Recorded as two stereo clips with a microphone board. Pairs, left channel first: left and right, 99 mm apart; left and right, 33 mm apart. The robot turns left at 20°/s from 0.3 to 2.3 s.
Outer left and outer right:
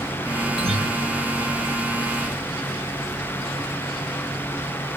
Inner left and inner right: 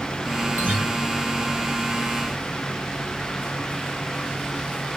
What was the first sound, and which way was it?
A guitar, 80° right.